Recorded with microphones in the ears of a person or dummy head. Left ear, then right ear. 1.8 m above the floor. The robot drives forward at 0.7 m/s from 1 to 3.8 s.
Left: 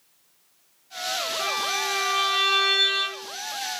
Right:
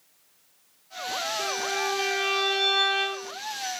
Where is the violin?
55° left (ahead or behind), 1.8 m; by 3.3 s 45° left (ahead or behind), 2 m.